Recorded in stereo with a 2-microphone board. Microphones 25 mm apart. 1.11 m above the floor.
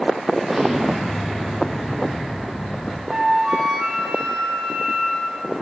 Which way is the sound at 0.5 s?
20° right (ahead or behind).